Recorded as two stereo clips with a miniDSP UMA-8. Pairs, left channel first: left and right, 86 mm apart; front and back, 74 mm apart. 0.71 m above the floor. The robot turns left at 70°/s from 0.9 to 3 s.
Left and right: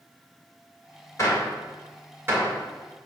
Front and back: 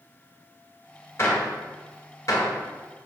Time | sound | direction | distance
1.2 | a gunshot | 45° left | 2 m